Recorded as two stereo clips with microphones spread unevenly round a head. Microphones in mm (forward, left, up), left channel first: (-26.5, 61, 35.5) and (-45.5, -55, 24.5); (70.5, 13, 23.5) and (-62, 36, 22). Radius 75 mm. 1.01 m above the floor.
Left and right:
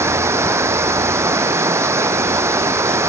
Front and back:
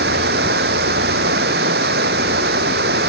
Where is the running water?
170° right.